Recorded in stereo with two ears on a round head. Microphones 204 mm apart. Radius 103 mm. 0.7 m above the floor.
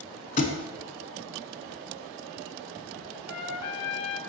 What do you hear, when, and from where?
0.4 s a thud: 35° left (ahead or behind), 0.7 m
3.3 s a trumpet: 70° left (ahead or behind), 0.7 m